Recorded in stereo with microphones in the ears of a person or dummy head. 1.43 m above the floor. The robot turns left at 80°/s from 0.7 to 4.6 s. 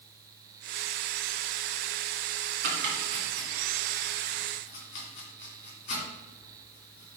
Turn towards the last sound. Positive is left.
turn(degrees=50)  # may be behind; listen again after turning